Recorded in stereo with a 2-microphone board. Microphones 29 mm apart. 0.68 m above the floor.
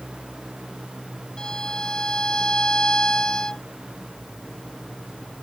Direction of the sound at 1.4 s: 30° left (ahead or behind).